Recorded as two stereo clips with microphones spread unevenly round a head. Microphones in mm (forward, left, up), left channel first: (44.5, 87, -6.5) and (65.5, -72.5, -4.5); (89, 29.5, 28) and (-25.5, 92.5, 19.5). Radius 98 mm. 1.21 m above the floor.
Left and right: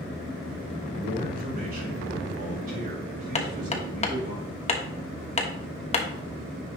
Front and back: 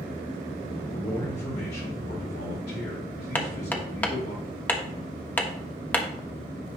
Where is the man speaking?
50° right, 4 m.